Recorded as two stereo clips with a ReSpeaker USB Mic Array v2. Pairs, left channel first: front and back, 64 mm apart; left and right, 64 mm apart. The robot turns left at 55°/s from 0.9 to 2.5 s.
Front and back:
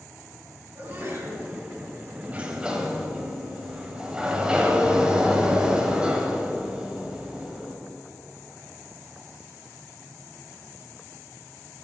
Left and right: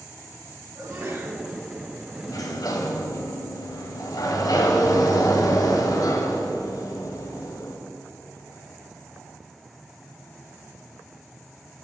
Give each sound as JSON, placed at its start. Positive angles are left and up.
{"t": 0.8, "sound": "a sneeze", "azimuth_deg": -120, "distance_m": 3.5}
{"t": 2.3, "sound": "a sliding door", "azimuth_deg": 115, "distance_m": 1.3}